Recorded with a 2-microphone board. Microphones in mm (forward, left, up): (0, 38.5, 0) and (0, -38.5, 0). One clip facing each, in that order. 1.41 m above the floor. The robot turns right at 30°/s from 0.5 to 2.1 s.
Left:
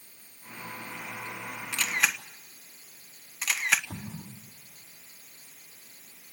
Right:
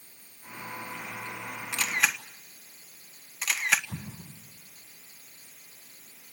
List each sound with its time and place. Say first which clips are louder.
1.7 s a camera shutter: right 1 dB; 15° right (ahead or behind), 1.4 m; by 3.8 s centre (ahead or behind), 1.4 m
3.9 s an explosion: left 1 dB; 85° left, 4 m